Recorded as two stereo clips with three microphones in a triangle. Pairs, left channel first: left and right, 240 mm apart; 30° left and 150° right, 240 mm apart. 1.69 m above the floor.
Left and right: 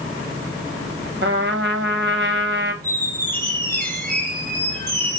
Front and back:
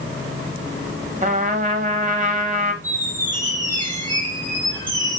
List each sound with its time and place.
1.2 s a trumpet: 100° right, 1.1 m
2.8 s a squeak: 40° right, 3 m